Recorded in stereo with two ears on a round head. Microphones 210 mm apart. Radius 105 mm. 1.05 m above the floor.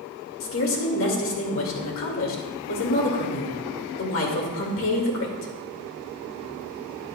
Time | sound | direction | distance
0.4 | a woman speaking | 60° left (ahead or behind) | 2 m